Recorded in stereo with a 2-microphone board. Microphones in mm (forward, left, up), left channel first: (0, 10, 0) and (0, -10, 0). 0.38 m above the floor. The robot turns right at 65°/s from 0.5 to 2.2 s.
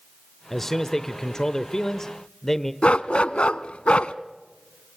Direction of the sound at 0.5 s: 10° left (ahead or behind).